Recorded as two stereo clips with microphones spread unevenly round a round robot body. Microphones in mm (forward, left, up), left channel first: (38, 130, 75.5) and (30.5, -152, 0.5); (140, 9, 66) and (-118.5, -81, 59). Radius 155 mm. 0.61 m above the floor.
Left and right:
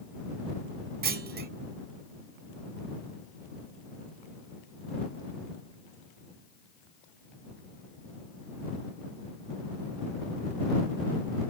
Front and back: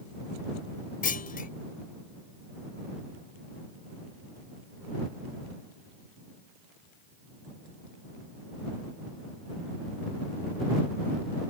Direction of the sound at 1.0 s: 40° right.